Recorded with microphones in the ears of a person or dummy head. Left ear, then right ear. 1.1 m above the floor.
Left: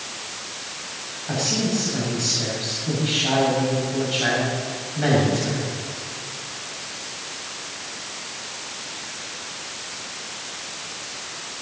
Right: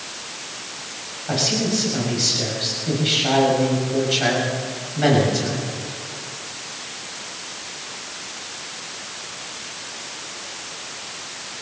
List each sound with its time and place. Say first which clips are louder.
1.3 s a man speaking: right 3 dB; 25° right (ahead or behind), 7 m